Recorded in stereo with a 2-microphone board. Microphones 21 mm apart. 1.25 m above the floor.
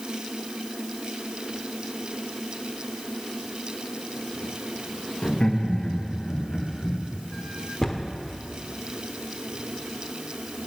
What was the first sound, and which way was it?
Laughter, 45° left (ahead or behind).